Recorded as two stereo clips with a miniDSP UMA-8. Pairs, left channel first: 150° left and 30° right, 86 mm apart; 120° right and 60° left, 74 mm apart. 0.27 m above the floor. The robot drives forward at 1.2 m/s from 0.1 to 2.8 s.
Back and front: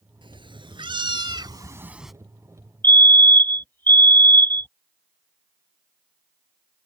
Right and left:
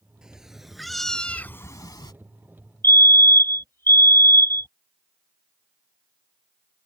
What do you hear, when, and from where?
0.2 s a cat meowing: 20° right; by 2.1 s 120° right
2.8 s a fire alarm: 155° right